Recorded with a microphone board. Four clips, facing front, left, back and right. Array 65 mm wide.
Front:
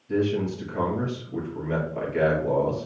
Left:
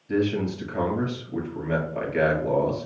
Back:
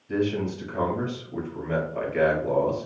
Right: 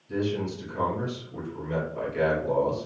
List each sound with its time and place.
0.1 s a man speaking: 95° left, 1.8 m